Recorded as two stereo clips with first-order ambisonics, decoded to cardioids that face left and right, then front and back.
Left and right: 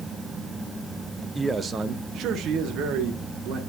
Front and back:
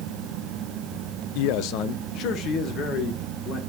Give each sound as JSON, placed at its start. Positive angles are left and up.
{"t": 1.4, "sound": "a man speaking", "azimuth_deg": 0, "distance_m": 0.6}